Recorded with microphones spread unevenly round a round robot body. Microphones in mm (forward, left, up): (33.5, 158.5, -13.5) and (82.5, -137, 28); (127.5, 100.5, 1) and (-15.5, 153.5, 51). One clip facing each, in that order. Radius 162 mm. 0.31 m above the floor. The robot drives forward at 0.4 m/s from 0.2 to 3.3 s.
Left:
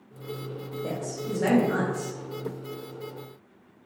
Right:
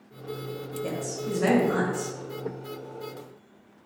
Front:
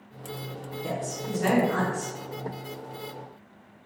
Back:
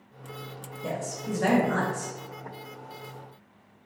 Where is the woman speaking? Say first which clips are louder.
Right 1 dB, even; 155° right, 1.2 m; by 2.1 s 165° right, 1.5 m.